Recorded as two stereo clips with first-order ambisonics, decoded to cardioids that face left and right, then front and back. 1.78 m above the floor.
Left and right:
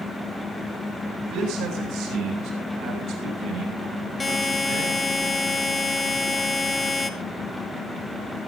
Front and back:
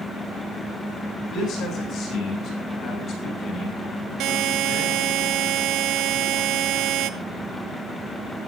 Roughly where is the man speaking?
Ahead right.